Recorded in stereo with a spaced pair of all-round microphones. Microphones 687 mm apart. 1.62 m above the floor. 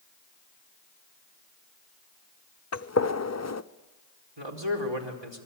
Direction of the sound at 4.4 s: 40° right (ahead or behind).